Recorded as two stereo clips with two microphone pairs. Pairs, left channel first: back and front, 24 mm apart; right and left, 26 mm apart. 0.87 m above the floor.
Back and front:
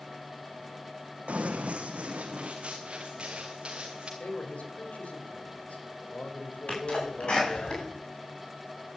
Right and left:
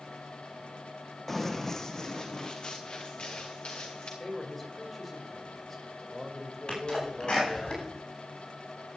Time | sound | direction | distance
1.3 | running footsteps | 10° right | 2 m
4.2 | a man speaking | 170° right | 3.5 m
6.7 | a sneeze | 140° right | 8.5 m